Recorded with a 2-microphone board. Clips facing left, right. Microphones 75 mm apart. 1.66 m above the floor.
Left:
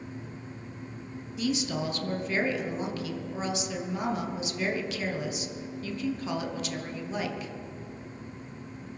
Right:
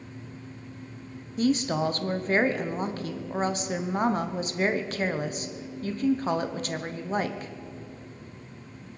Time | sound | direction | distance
1.4 | a woman speaking | 45° right (ahead or behind) | 1.0 m